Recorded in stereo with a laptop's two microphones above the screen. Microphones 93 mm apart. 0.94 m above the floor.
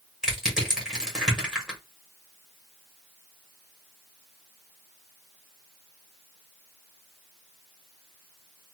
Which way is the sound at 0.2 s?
5° right (ahead or behind).